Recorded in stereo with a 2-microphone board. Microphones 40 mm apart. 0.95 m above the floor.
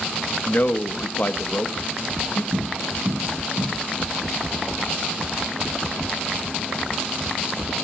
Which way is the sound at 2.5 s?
60° right (ahead or behind).